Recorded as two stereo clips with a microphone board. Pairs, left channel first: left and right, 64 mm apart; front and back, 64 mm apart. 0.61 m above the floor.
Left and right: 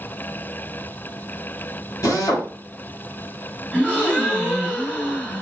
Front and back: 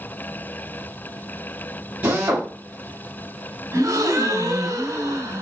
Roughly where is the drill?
Behind left.